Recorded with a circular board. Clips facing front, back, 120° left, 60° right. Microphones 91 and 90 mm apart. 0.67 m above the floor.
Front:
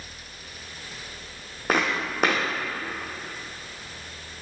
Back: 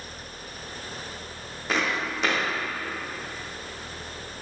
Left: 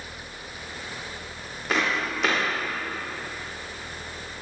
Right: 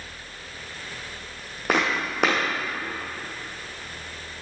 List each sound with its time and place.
1.7 s footsteps: 35° right, 2.5 m